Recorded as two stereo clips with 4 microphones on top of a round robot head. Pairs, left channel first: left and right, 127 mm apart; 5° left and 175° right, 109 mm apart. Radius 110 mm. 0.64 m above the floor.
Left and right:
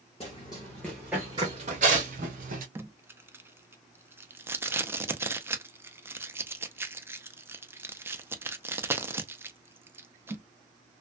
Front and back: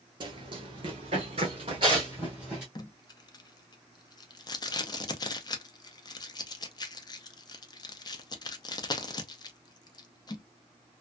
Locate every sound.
0.2 s running footsteps: 150° left, 0.9 m; by 2.6 s 90° right, 1.0 m
2.8 s tape being pulled: 25° right, 0.5 m